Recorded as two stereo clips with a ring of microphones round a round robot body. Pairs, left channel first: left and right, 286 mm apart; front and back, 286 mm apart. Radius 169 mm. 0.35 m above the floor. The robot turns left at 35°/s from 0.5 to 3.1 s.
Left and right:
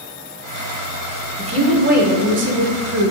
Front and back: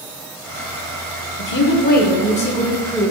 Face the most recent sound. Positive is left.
turn(degrees=-85)